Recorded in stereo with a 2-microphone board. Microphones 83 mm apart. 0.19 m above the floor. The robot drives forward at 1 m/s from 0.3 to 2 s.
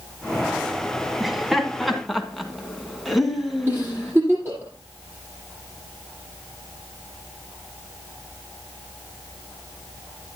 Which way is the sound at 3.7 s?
25° right (ahead or behind).